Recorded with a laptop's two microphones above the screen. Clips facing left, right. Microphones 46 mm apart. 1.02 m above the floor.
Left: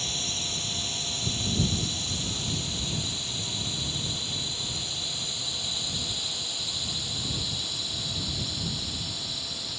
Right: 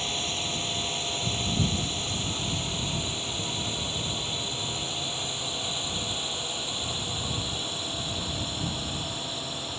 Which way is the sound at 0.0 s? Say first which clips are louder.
Right 3 dB; 25° right (ahead or behind).